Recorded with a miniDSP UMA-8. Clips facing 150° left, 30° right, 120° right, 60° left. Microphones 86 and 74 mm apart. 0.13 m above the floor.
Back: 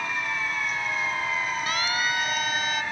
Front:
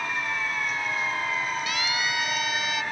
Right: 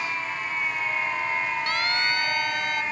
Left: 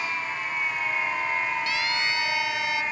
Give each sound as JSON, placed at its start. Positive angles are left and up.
{"t": 1.7, "sound": "a siren", "azimuth_deg": -160}